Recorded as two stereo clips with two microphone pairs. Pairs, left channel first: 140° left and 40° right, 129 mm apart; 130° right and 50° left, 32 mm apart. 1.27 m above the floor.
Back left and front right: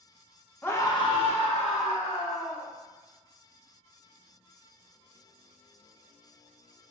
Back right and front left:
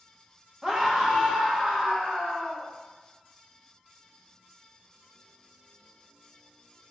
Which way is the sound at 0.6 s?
90° left.